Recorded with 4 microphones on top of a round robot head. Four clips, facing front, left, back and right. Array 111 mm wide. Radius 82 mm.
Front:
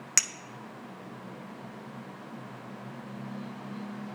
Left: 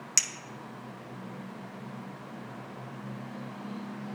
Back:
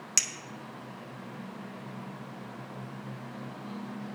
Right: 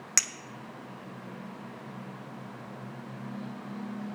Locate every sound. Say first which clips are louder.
0.2 s a clink: right 5 dB, front 5 dB; 50° right, 0.6 m